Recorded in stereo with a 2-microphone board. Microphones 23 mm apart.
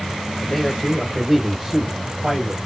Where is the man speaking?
15° left (ahead or behind), 0.9 m; by 2.6 s 30° right (ahead or behind), 1.1 m.